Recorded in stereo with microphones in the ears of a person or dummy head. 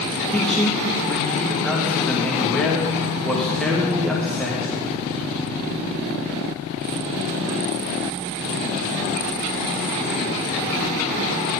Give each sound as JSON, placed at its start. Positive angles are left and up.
{"t": 0.3, "sound": "a man speaking", "side_deg": 5, "distance_m": 1.2}